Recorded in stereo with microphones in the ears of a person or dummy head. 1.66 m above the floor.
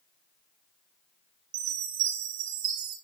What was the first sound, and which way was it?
A chime, 55° right (ahead or behind).